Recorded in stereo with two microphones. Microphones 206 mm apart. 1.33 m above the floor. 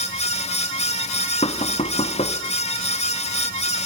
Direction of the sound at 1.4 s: 30° left (ahead or behind).